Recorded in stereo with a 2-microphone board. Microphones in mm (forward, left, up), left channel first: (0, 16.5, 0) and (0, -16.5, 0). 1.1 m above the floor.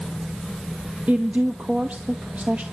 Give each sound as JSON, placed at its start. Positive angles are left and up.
{"t": 1.1, "sound": "a woman speaking", "side_deg": -45, "distance_m": 1.3}